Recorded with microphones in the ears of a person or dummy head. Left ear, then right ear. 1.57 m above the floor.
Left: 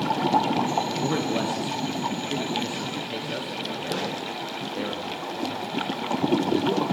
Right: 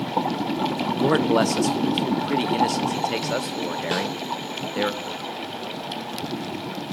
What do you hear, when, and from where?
1.0 s a man speaking: 40° right (ahead or behind), 0.5 m
3.9 s a snare drum: 45° right (ahead or behind), 2.5 m